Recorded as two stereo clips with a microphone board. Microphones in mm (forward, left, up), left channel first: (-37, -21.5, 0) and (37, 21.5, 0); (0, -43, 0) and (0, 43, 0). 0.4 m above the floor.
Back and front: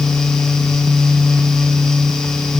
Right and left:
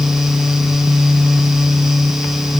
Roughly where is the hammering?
No hammering in this recording.